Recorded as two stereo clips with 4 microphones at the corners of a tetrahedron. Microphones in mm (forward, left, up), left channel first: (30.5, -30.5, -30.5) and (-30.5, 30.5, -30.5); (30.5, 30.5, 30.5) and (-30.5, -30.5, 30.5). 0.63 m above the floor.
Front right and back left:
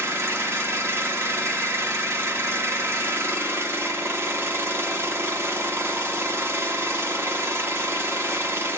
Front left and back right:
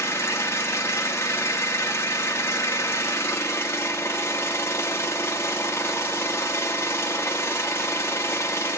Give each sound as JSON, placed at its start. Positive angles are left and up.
{"t": 0.0, "sound": "an engine running", "azimuth_deg": 90, "distance_m": 1.1}